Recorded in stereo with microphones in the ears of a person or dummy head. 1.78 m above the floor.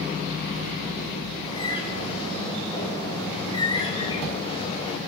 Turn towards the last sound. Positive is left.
turn(degrees=25)  # may be behind; listen again after turning